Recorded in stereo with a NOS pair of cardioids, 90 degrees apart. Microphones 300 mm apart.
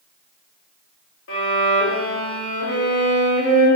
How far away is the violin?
About 1.4 m.